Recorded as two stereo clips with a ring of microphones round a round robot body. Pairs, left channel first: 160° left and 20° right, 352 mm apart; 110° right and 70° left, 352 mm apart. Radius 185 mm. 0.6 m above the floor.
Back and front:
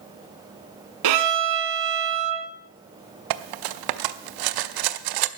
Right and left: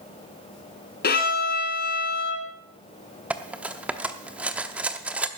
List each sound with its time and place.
1.0 s a violin: 50° right, 1.2 m
3.3 s cutlery clinking: 20° right, 0.7 m